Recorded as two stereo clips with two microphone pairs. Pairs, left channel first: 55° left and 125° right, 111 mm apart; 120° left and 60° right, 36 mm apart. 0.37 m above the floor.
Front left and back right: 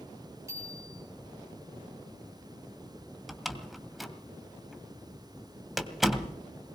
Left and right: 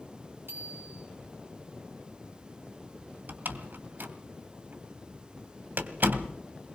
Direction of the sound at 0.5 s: 65° right.